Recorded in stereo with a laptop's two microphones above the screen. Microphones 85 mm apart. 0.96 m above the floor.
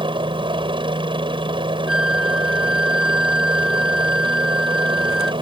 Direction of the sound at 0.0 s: 75° right (ahead or behind).